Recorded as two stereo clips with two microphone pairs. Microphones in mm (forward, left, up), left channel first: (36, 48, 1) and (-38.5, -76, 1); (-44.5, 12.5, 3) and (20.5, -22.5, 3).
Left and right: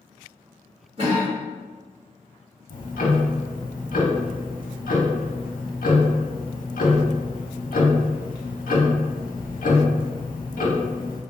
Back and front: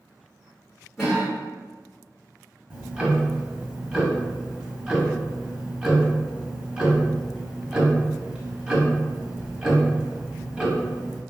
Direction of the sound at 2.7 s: 50° left.